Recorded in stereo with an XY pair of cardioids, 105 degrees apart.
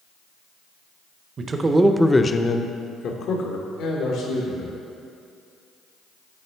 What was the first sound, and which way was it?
A man speaking, 45° right.